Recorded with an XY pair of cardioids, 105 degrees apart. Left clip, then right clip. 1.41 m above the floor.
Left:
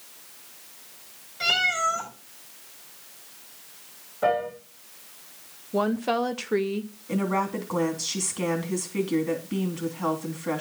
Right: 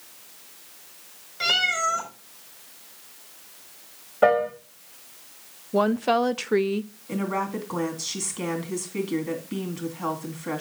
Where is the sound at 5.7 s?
20° right, 0.6 m.